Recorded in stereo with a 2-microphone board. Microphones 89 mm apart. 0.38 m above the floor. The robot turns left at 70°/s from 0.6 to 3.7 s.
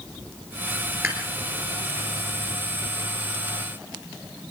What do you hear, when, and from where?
1.0 s dishes clattering: 25° right (ahead or behind), 4 m; by 1.3 s 45° right (ahead or behind), 4 m